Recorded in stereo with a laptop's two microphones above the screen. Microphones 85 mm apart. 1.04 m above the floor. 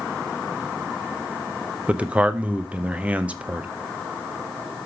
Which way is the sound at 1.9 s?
15° right (ahead or behind).